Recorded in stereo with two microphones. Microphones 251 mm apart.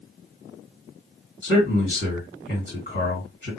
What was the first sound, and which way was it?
A man speaking, 40° left (ahead or behind).